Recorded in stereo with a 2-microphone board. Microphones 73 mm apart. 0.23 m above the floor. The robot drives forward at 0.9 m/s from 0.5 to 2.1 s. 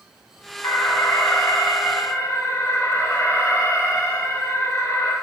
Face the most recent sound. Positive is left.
turn(degrees=40)  # may be behind; listen again after turning